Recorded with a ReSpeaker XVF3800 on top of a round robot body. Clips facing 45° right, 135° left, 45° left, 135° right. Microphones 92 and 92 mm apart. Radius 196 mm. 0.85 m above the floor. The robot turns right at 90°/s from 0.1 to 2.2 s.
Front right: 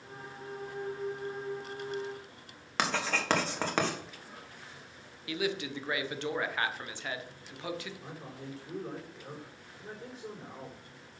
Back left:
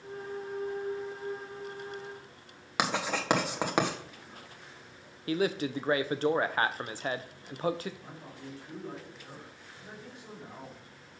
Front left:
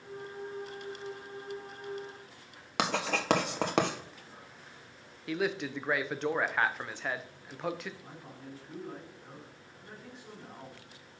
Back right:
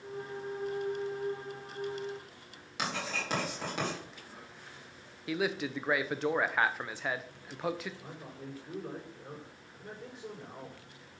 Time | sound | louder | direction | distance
2.8 | writing | back left 1 dB, front left 5 dB | 60° left | 1.6 m
5.3 | a man speaking | back left 4 dB, even | 140° left | 1.0 m
8.0 | a man speaking | front right 2 dB, back right 2 dB | 95° right | 4.5 m